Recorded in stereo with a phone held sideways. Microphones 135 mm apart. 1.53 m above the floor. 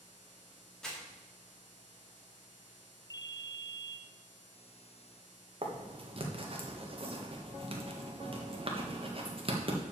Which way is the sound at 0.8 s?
5° left (ahead or behind).